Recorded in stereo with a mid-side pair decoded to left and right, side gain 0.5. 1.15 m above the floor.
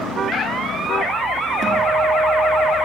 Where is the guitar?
35° right, 3.5 m.